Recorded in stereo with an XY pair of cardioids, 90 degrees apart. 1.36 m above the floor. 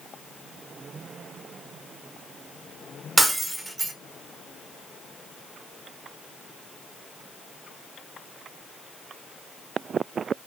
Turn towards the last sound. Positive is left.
turn(degrees=-15)